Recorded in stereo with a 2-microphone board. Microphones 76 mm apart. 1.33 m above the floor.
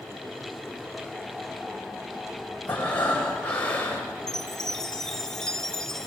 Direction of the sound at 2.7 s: 20° left (ahead or behind).